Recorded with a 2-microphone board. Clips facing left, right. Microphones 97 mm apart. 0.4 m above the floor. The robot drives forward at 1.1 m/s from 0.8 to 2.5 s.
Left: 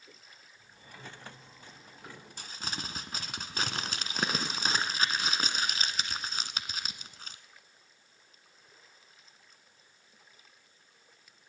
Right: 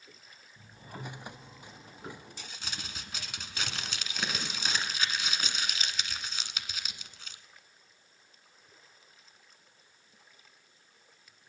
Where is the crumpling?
50° left (ahead or behind), 0.8 m; by 7.4 s 40° left (ahead or behind), 0.9 m.